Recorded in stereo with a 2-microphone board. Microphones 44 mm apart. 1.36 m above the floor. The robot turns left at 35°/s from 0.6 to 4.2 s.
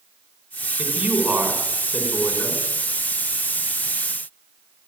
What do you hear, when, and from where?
0.8 s a man speaking: 130° right, 5.5 m; by 2.6 s 165° left, 5.5 m